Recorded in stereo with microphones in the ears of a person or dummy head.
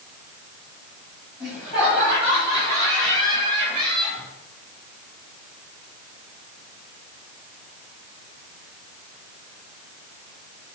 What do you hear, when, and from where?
1.4 s laughter: 5° right (ahead or behind), 4 m; by 4.3 s 35° right (ahead or behind), 3.5 m